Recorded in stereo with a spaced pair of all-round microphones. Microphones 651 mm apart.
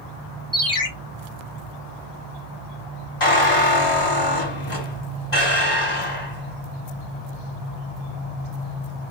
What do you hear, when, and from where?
0.5 s a ringtone: 30° right (ahead or behind), 1.1 m
3.2 s a squeak: 50° left (ahead or behind), 1.5 m